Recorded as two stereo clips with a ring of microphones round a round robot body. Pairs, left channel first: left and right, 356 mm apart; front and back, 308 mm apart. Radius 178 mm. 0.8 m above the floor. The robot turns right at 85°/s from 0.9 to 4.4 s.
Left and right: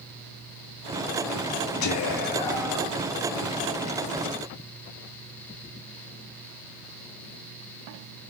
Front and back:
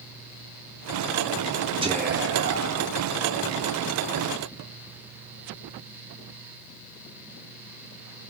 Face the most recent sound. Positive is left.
turn(degrees=-30)